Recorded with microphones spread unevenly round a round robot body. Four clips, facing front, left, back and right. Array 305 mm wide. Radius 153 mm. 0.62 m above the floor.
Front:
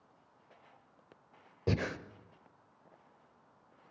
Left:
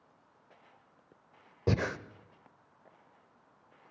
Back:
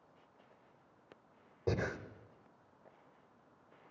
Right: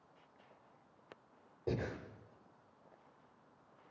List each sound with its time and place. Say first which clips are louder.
1.7 s breathing: left 7 dB, front 2 dB; 70° left, 0.9 m